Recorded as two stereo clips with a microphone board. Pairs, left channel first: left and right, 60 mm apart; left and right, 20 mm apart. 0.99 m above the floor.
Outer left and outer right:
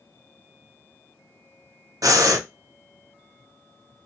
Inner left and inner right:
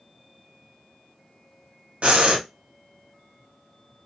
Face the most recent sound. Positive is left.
turn(degrees=-70)  # may be behind; listen again after turning